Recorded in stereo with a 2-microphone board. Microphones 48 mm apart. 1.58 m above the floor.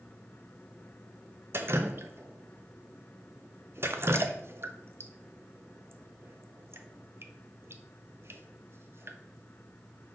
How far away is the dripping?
About 0.6 m.